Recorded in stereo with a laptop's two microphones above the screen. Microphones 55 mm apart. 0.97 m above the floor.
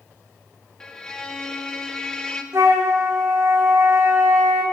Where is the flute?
70° right (ahead or behind), 1.7 m.